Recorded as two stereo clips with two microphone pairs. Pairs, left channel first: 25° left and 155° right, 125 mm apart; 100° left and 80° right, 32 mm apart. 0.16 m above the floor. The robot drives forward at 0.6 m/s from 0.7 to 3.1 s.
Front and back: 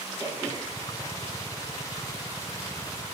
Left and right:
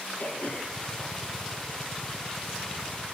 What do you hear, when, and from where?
0.2 s throat clearing: 145° left, 4 m; by 1.8 s 150° left, 4.5 m